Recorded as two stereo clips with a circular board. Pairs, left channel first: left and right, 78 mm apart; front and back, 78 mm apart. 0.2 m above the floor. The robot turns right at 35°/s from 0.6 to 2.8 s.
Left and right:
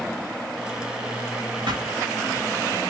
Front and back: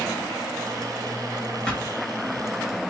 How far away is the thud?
About 1.5 m.